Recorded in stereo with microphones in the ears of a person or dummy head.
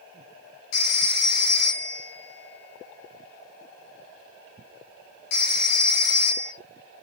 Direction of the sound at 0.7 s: 65° left (ahead or behind).